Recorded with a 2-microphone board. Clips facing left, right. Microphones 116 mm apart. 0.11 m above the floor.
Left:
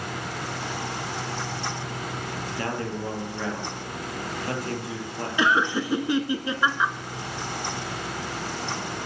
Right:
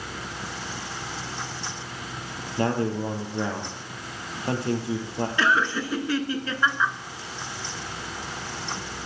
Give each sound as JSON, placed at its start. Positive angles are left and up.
{"t": 2.6, "sound": "a man speaking", "side_deg": -25, "distance_m": 2.5}
{"t": 5.4, "sound": "laughter", "side_deg": 20, "distance_m": 1.1}